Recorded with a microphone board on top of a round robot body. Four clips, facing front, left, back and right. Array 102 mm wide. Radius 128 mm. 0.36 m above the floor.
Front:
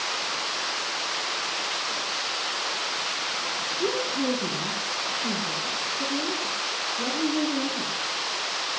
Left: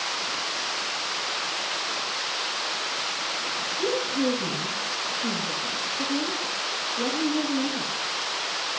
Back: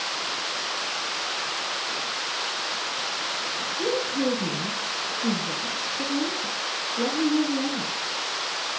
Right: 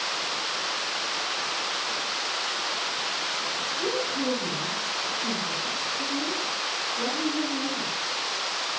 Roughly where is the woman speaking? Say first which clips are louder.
Left 3 dB, back 2 dB; behind.